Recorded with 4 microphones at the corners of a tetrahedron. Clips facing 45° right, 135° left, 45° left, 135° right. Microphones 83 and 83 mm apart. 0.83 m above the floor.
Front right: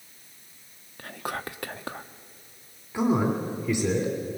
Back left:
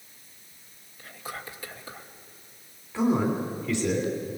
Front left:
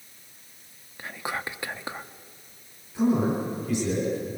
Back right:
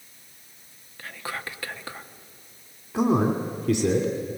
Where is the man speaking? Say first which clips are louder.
Even, back right 1 dB; 120° right, 3 m.